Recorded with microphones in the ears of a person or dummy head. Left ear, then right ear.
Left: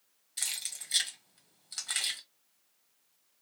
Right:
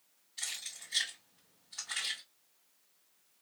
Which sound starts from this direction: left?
Keys jangling, at 0.4 s.